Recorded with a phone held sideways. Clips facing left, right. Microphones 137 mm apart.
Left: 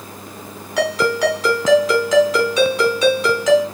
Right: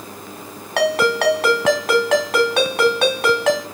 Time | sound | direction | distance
0.8 | a ringtone | 65° right (ahead or behind) | 3.5 m